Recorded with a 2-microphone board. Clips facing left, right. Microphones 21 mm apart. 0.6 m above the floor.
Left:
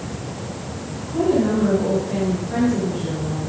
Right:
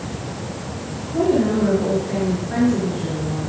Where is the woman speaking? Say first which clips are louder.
Right 1 dB; 15° right (ahead or behind), 9 m.